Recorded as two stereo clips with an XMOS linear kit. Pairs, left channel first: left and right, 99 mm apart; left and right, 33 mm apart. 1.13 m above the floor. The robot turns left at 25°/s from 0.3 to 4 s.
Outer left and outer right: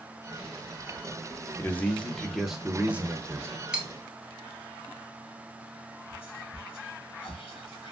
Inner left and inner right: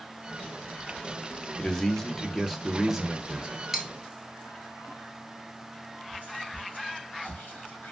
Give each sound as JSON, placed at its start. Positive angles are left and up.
{"t": 1.6, "sound": "a man speaking", "azimuth_deg": 20, "distance_m": 0.7}
{"t": 3.7, "sound": "cutlery clinking", "side_deg": -10, "distance_m": 0.5}
{"t": 6.1, "sound": "whispering", "side_deg": 65, "distance_m": 1.5}